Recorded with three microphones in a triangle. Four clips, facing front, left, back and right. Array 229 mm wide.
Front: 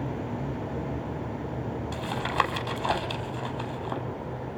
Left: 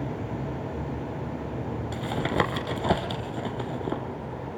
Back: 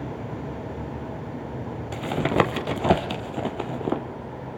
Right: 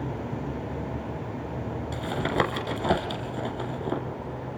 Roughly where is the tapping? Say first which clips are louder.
Even, back 6 dB; behind.